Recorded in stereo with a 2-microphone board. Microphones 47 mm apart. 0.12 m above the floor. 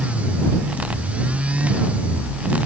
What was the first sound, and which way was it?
Only background noise.